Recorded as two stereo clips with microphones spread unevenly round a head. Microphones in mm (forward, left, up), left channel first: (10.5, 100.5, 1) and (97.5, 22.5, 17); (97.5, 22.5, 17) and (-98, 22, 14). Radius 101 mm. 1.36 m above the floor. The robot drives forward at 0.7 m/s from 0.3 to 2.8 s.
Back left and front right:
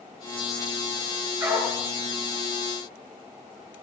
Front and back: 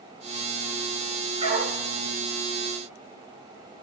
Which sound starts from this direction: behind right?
A dog barking, at 1.4 s.